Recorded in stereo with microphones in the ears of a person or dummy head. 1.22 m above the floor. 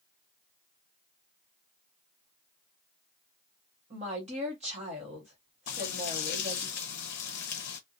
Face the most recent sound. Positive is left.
turn(degrees=55)  # may be behind; listen again after turning